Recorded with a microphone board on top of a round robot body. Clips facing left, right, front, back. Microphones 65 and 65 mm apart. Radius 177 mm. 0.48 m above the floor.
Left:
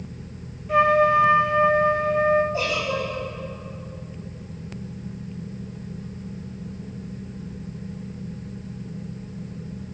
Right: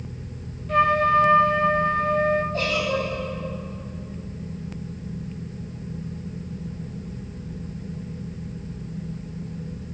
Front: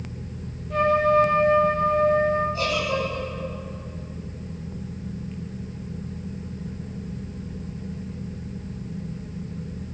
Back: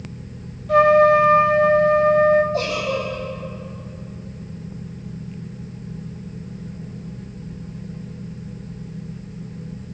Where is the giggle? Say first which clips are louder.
Right 1 dB, back 2 dB; 170° left, 5 m.